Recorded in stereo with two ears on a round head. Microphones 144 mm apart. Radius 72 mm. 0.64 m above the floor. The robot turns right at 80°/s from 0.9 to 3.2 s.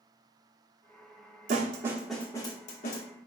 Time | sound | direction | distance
1.5 | a snare drum | 45° right (ahead or behind) | 0.9 m